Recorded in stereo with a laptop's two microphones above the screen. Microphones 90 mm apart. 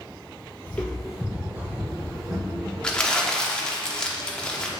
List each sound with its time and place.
0.7 s footsteps: 20° left (ahead or behind), 1.4 m; by 2.6 s 35° right (ahead or behind), 3.5 m
2.8 s crumpling: 10° left (ahead or behind), 1.1 m